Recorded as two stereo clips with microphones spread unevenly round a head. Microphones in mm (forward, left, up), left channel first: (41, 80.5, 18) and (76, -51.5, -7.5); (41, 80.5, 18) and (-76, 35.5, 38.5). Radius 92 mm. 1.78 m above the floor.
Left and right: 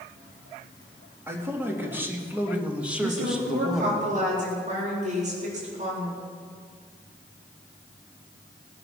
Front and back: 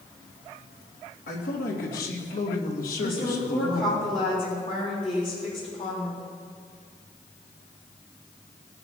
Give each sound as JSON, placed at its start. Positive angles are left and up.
{"t": 1.3, "sound": "a man speaking", "azimuth_deg": 0, "distance_m": 3.5}
{"t": 3.0, "sound": "a woman speaking", "azimuth_deg": -45, "distance_m": 4.0}